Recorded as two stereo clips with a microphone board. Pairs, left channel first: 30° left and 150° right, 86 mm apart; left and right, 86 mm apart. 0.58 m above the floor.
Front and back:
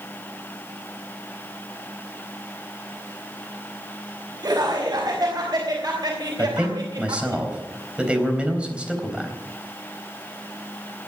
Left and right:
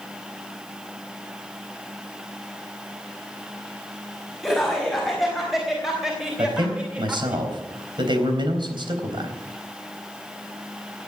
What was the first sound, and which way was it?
Laughter, straight behind.